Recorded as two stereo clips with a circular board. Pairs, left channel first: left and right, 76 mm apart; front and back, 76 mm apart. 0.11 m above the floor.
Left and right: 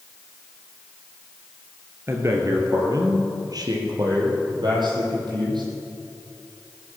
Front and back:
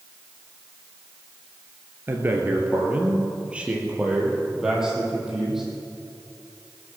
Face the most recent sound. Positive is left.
turn(degrees=-95)